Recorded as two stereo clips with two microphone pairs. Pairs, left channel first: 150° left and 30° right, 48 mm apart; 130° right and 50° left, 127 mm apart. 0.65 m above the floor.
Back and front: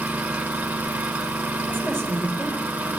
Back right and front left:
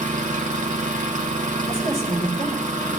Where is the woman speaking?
80° left, 2.5 m.